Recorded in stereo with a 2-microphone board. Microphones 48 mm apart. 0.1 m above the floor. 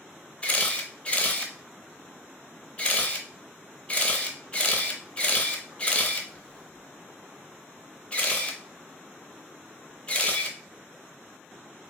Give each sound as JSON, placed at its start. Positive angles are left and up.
{"t": 0.4, "sound": "a camera shutter", "side_deg": 20, "distance_m": 0.6}